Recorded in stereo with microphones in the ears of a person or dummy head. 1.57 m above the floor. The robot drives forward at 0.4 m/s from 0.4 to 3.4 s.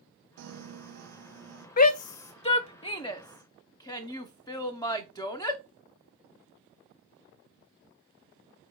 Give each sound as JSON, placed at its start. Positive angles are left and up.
{"t": 0.4, "sound": "a piano", "side_deg": -70, "distance_m": 0.6}
{"t": 1.8, "sound": "a shout", "side_deg": 45, "distance_m": 0.5}